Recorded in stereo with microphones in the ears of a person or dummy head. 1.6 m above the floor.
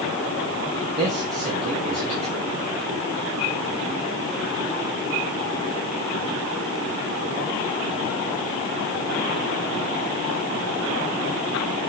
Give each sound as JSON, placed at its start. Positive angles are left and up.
{"t": 1.0, "sound": "a man speaking", "side_deg": -35, "distance_m": 1.4}